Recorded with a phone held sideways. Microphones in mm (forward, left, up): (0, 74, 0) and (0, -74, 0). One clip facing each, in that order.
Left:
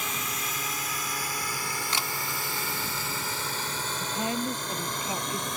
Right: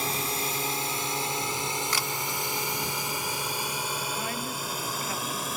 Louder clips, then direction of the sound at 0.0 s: Right 4 dB; 35° right (ahead or behind).